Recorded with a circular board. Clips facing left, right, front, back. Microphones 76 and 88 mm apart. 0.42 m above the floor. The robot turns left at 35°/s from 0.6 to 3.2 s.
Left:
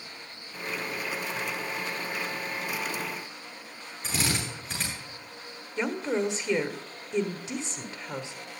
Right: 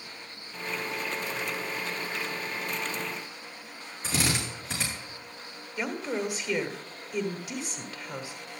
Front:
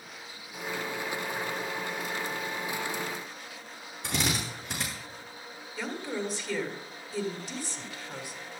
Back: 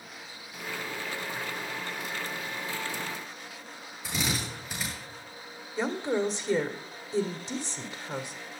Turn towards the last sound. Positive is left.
turn(degrees=135)